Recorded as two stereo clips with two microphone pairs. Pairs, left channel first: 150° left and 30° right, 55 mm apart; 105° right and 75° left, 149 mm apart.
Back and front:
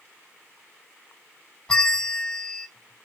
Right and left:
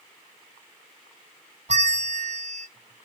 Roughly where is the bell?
Left.